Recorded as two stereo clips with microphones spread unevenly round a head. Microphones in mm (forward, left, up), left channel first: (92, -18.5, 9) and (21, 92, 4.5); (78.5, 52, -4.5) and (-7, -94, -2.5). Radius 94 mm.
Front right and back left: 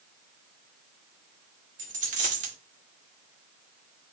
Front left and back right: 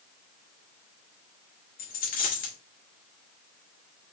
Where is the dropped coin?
100° left, 1.4 m.